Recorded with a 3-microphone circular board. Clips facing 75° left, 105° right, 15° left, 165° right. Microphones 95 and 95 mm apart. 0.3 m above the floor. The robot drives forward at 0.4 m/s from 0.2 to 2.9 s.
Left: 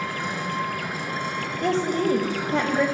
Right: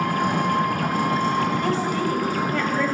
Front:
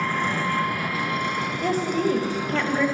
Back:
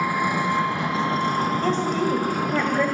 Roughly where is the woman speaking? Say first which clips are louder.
Even, back 1 dB; left.